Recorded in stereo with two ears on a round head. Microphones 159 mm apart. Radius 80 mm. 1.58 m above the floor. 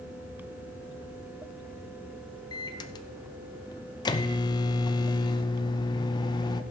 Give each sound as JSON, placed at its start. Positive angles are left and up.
{"t": 2.5, "sound": "a microwave", "side_deg": 25, "distance_m": 0.7}